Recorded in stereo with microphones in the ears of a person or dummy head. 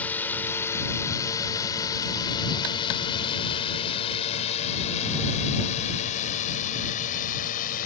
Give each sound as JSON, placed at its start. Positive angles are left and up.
{"t": 0.0, "sound": "a drone", "side_deg": 5}